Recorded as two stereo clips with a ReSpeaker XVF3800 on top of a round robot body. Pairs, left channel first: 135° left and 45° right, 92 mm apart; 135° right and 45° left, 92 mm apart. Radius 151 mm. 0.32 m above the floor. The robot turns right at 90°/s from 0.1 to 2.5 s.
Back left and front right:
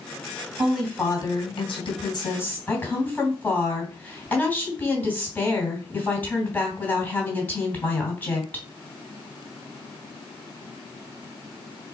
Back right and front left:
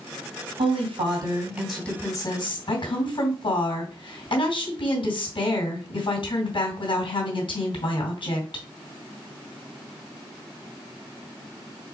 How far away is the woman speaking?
About 2.5 m.